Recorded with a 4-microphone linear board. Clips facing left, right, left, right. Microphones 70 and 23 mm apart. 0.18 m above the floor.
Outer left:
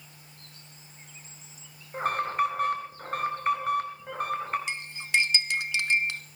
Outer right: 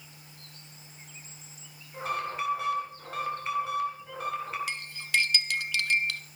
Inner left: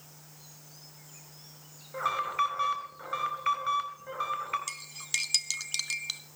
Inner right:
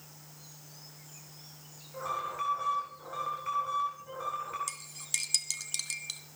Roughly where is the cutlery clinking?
Left.